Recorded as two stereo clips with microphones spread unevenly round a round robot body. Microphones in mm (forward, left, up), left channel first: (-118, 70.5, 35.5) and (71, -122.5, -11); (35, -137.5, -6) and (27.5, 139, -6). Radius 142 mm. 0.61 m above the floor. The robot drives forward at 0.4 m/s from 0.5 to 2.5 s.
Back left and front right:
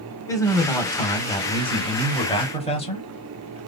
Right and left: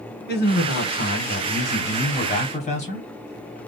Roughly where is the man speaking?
Behind right.